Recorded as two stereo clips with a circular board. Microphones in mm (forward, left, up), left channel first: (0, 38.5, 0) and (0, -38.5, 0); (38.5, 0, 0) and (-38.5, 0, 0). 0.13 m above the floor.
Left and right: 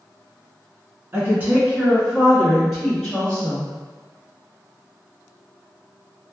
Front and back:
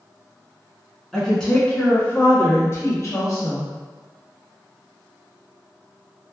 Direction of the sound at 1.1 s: 85° right.